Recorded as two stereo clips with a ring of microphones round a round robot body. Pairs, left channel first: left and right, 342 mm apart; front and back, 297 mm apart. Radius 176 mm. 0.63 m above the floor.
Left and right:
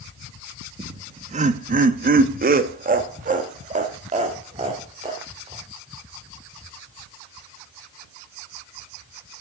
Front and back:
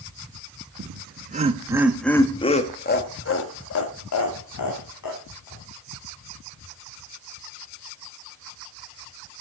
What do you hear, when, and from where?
0.8 s laughter: 160° right, 1.0 m; by 5.6 s 15° right, 2 m